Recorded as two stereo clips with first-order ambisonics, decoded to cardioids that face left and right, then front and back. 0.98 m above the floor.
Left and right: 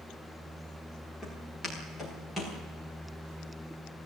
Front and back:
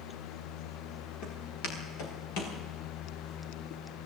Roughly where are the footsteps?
Ahead.